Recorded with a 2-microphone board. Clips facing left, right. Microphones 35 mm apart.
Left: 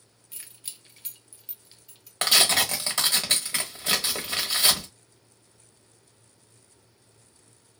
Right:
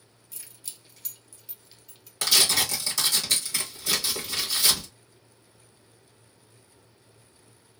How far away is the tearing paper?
About 1.0 m.